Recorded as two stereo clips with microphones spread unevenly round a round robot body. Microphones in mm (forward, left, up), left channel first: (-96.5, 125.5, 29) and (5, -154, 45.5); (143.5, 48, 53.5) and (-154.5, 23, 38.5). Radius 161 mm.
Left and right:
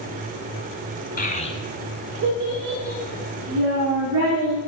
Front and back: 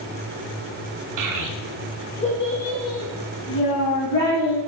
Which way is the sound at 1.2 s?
170° left.